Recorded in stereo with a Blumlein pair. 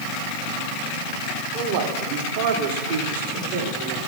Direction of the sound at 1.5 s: 45° right.